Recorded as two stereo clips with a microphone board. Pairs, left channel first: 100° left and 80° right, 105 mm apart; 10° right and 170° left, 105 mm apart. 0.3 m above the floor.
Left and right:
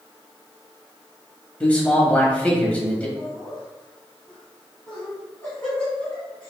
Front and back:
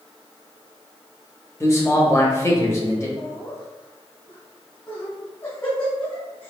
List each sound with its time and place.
1.6 s a man speaking: 35° left, 1.1 m
3.2 s laughter: 30° left, 1.7 m